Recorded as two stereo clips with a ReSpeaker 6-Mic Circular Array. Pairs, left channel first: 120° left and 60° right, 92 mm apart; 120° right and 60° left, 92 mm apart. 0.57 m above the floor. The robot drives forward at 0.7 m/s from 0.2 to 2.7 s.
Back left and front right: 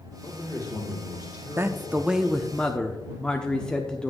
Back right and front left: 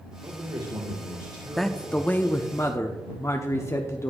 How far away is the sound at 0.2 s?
About 1.9 m.